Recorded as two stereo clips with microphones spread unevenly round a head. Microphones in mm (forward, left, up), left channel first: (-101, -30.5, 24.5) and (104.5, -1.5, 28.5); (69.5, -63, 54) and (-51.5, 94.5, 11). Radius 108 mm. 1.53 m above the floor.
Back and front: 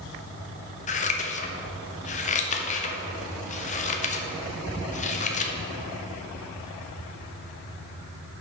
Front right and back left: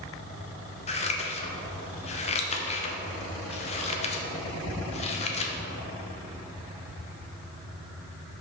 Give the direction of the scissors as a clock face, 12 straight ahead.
4 o'clock.